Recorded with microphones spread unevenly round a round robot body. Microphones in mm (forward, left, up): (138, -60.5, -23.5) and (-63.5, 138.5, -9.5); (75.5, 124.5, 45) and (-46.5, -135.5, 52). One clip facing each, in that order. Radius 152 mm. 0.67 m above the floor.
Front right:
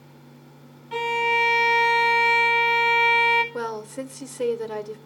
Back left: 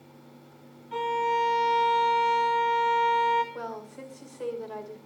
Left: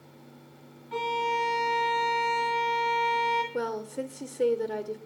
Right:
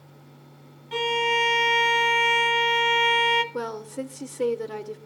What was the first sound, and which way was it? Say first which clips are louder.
A violin: front right 2 dB, right 5 dB; 80° right.